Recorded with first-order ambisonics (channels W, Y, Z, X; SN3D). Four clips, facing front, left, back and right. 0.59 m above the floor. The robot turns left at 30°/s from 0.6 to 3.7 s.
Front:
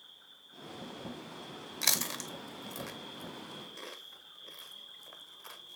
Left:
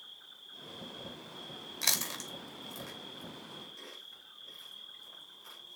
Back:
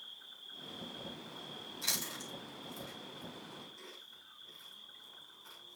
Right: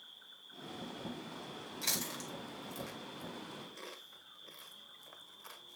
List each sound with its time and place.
0.0 s an insect: 110° left, 2.5 m; by 5.8 s 15° left, 2.5 m
1.8 s chewing: 35° left, 1.3 m; by 5.8 s 20° right, 1.3 m